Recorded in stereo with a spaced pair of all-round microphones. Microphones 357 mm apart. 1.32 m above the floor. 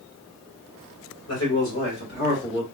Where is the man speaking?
45° left (ahead or behind), 2.0 m; by 2.6 s 15° left (ahead or behind), 1.4 m.